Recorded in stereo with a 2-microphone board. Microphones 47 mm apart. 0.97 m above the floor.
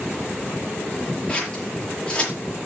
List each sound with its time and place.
1.3 s scissors: 20° left (ahead or behind), 5.5 m